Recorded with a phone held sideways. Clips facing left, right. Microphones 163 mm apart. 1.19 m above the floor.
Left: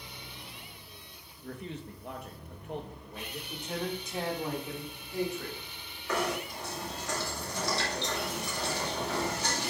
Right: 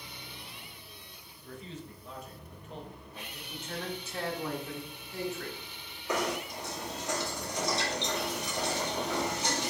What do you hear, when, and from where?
1.4 s a man speaking: 60° left (ahead or behind), 1.4 m
3.5 s a man speaking: 15° left (ahead or behind), 2.5 m
6.1 s knocking: 20° right (ahead or behind), 2.5 m